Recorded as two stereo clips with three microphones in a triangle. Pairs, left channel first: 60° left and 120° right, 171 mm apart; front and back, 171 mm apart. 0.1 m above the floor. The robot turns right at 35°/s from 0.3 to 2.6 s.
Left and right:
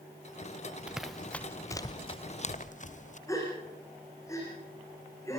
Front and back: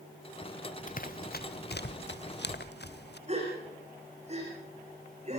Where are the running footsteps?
35° right, 0.8 m; by 3.2 s 15° left, 2 m.